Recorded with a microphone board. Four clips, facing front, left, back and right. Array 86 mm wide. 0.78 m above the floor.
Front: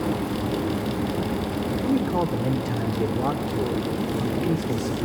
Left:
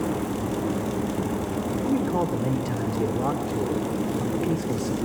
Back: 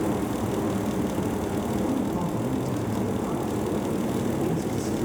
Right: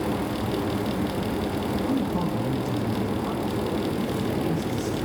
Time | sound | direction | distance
1.9 | a man speaking | 35° left | 2.5 m